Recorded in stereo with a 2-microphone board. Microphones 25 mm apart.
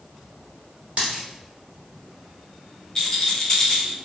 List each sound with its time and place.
1.0 s a dropped coin: 50° right (ahead or behind), 1.4 m
3.0 s a rattle: 25° left (ahead or behind), 0.6 m